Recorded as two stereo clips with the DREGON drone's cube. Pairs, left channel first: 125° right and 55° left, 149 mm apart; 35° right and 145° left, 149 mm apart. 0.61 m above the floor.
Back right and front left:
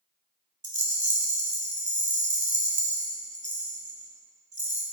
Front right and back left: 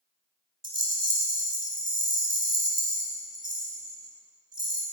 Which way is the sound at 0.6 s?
90° left.